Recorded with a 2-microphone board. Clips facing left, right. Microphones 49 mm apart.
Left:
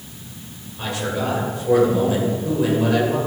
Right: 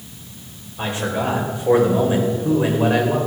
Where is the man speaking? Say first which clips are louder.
Right 2 dB; 25° right (ahead or behind), 3 m.